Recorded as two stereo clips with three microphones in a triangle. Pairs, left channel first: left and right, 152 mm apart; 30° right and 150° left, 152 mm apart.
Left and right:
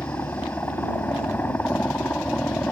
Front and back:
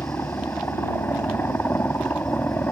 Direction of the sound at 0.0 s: 30° left.